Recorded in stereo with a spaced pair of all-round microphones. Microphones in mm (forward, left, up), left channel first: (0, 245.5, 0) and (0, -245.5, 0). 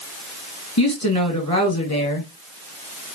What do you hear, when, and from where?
0.8 s a woman speaking: 35° left (ahead or behind), 1.7 m